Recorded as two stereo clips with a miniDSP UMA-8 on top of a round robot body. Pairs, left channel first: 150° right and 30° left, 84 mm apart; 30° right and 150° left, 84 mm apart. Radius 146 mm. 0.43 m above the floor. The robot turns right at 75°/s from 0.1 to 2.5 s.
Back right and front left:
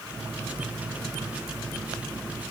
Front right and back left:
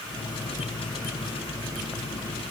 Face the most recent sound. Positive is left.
No sound to turn to.